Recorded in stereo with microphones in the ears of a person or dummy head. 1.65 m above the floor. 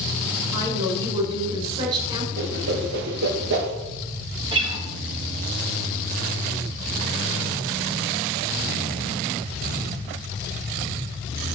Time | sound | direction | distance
0.5 | a woman speaking | 30° right (ahead or behind) | 8 m
2.4 | a whoosh | 60° right (ahead or behind) | 2.5 m
4.5 | a guitar | 25° right (ahead or behind) | 3 m